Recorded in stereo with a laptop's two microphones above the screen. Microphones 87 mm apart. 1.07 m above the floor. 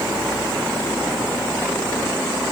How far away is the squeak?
No squeak in this recording.